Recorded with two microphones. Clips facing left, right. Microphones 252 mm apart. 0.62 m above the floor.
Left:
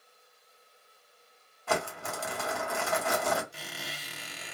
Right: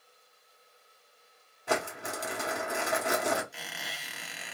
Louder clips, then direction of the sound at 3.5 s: Left 2 dB; 40° left (ahead or behind).